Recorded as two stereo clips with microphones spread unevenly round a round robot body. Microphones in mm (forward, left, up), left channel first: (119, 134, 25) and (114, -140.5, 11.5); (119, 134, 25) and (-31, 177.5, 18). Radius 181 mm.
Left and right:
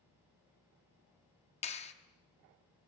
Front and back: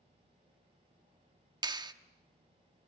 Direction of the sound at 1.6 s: 140° left.